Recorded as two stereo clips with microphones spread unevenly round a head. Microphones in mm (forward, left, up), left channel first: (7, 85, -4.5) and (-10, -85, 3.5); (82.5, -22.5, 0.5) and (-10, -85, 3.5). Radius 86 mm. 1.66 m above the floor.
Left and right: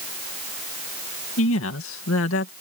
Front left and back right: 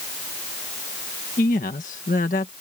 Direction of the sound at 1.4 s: 75° left.